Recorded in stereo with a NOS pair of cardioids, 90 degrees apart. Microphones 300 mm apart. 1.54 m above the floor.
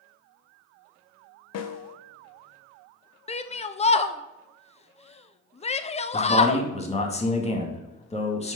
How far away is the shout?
About 0.9 m.